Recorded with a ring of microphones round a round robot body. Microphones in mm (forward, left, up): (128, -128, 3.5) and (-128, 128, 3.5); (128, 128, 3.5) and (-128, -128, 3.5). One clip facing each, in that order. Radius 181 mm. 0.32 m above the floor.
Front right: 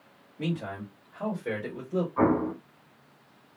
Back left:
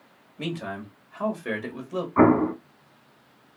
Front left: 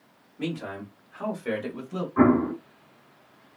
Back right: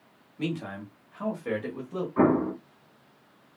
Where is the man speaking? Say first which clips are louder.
Even, even; 165° left, 1.5 m; by 2.1 s 105° left, 1.4 m.